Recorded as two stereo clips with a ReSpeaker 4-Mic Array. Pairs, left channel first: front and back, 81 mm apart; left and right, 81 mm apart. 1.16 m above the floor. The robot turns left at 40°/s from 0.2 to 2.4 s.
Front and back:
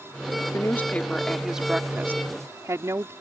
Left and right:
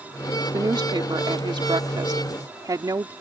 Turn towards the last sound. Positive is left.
turn(degrees=-130)